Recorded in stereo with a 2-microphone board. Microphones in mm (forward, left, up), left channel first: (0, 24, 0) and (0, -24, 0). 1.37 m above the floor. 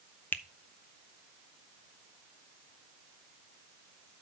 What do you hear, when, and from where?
0.3 s a finger snap: 40° left (ahead or behind), 0.7 m